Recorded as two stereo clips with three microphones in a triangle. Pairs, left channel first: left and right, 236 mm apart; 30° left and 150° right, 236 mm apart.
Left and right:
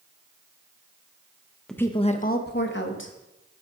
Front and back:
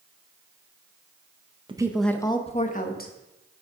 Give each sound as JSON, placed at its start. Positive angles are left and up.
{"t": 1.7, "sound": "a woman speaking", "azimuth_deg": 175, "distance_m": 0.7}